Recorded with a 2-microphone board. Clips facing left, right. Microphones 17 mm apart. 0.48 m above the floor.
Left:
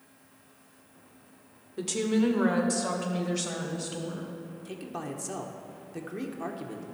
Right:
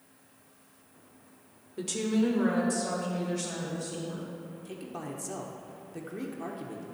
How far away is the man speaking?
About 0.8 m.